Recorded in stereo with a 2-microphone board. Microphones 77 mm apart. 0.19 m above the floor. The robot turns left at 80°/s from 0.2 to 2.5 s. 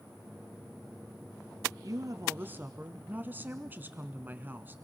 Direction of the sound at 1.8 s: 95° right.